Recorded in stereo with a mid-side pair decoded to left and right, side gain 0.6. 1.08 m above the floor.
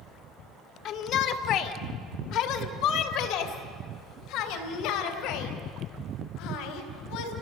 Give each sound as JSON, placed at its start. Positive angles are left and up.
{"t": 0.8, "sound": "a shout", "azimuth_deg": 60, "distance_m": 1.9}